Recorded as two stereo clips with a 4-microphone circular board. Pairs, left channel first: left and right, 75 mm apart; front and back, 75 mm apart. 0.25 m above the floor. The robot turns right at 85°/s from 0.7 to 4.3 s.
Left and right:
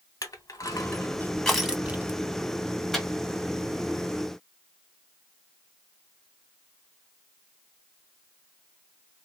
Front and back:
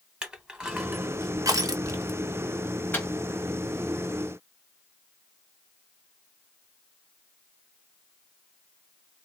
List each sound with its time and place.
0.2 s crushing: 105° left, 0.8 m; by 2.2 s 130° right, 0.8 m
2.9 s a microwave: 5° left, 1.0 m; by 3.1 s 15° left, 1.0 m